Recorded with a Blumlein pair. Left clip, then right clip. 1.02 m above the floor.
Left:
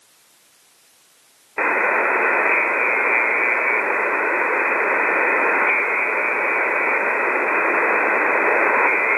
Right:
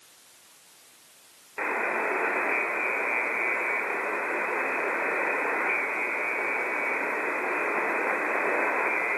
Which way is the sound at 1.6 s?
30° left.